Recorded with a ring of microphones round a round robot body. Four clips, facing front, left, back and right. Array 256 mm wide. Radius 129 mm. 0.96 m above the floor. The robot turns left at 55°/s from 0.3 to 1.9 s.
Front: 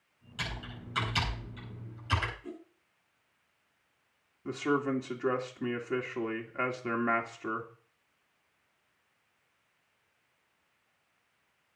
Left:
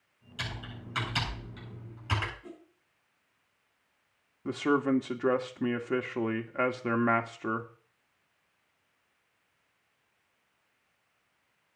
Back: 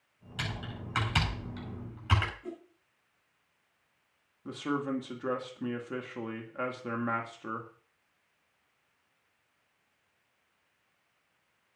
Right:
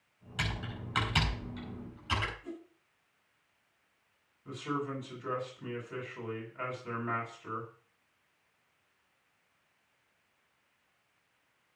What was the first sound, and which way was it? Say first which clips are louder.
Typing on a keyboard: right 3 dB, back 2 dB; 115° right.